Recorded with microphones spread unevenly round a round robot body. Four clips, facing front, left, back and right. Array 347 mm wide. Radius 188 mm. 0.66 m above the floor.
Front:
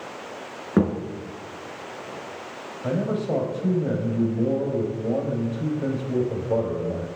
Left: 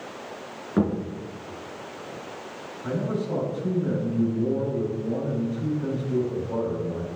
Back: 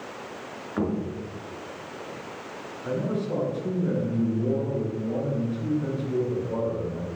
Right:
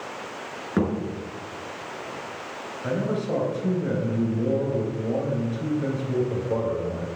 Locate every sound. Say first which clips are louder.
0.8 s a thud: left 1 dB, front 6 dB; 5° right, 4 m
2.8 s a man speaking: right 2 dB, front 3 dB; 10° right, 4 m